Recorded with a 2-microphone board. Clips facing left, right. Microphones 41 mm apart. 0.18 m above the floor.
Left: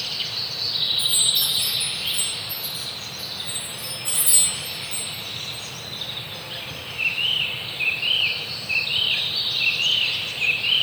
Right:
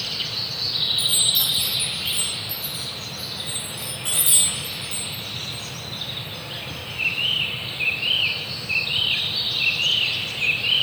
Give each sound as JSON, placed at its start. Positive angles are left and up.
{"t": 1.0, "sound": "a chime", "side_deg": -75, "distance_m": 6.0}